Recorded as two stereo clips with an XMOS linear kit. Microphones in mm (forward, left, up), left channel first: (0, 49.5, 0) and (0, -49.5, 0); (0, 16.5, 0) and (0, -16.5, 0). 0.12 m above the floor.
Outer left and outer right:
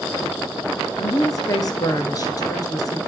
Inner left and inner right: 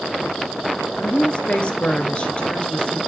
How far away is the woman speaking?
About 1.9 m.